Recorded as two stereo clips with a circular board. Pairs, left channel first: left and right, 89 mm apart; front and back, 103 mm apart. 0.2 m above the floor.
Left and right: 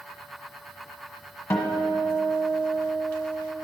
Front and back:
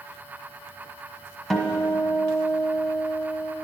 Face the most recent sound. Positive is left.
turn(degrees=85)